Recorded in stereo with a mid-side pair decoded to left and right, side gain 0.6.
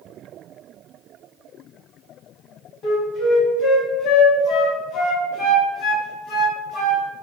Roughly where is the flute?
Ahead left.